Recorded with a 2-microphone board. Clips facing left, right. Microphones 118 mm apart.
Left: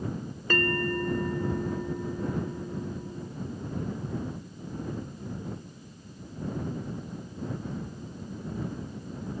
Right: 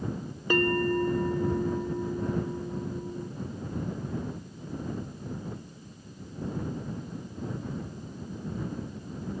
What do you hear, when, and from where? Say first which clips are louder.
0.5 s a bell: right 3 dB; 15° right (ahead or behind)